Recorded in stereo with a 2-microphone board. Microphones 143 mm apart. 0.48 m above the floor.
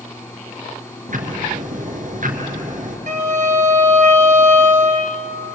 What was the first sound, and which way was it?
Ticking, 60° right (ahead or behind).